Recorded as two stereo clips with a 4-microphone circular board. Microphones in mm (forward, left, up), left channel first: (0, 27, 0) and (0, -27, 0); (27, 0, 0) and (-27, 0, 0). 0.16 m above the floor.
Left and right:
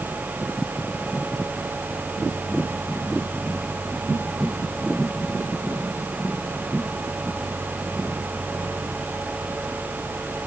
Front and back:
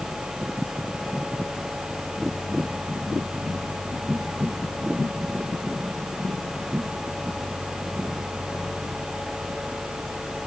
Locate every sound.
Only background noise.